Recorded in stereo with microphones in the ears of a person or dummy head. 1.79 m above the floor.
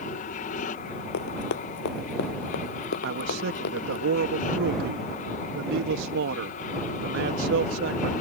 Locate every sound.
0.0 s an aircraft: 35° left (ahead or behind)
1.1 s running footsteps: 70° left (ahead or behind)
3.0 s a man speaking: 60° right (ahead or behind)